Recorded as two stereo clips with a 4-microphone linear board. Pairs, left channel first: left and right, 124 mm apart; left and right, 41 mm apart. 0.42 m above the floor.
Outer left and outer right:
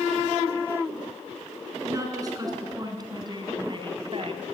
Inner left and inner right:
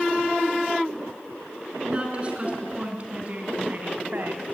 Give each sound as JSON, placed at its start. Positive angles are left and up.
{"t": 1.8, "sound": "a woman speaking", "side_deg": -25, "distance_m": 4.5}